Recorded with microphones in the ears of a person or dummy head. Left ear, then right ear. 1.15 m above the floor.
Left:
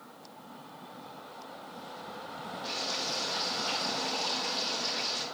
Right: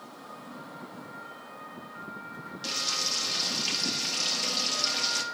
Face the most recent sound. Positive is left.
turn(degrees=-80)